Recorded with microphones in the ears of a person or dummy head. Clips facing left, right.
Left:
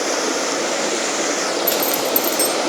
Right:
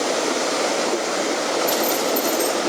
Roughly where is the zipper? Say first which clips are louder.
Even; left.